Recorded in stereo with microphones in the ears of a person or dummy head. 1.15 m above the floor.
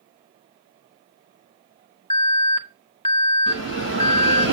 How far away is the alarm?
About 1.0 m.